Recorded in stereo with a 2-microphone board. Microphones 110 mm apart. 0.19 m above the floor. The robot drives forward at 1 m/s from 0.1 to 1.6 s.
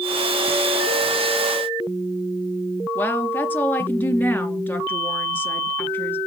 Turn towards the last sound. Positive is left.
turn(degrees=15)  # may be behind; listen again after turning